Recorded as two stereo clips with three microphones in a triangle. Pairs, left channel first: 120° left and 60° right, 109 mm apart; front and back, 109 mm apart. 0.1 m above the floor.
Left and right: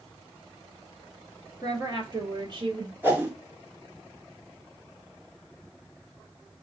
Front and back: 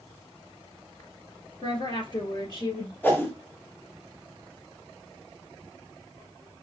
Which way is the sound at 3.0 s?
30° right.